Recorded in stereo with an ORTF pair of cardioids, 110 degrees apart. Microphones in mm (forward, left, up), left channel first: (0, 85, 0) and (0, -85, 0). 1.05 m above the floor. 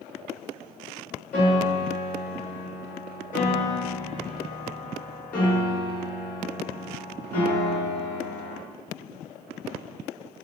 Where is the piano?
55° left, 1.8 m.